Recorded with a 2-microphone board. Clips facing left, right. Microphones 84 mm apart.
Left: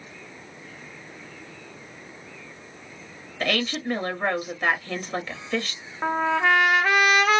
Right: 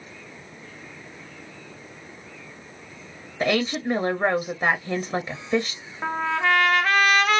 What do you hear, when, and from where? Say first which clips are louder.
3.4 s a woman speaking: right 3 dB; 20° right (ahead or behind), 0.7 m
6.0 s a trumpet: left 2 dB; 10° left (ahead or behind), 0.7 m